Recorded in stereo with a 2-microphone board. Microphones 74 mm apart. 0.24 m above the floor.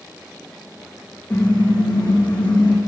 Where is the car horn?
10° left (ahead or behind), 9 m; by 2.8 s 15° left (ahead or behind), 7.5 m.